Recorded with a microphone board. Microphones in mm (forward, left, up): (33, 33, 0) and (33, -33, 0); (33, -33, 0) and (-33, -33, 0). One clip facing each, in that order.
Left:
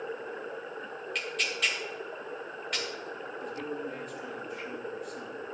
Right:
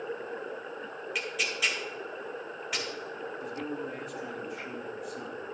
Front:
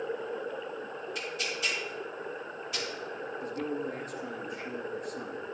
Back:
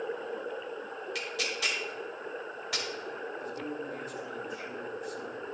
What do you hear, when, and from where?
1.1 s tearing paper: 175° right, 2.0 m
3.4 s a man speaking: straight ahead, 1.4 m